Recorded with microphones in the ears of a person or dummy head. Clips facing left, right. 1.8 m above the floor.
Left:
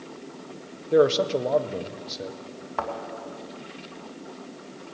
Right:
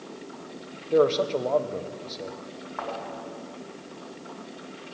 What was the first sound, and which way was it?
A man speaking, 10° left (ahead or behind).